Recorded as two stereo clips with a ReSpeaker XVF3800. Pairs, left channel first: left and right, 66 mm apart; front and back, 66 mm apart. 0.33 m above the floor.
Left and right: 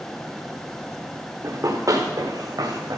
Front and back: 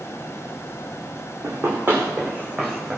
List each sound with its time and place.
1.4 s running footsteps: 130° right, 1.7 m; by 3.0 s 105° right, 2 m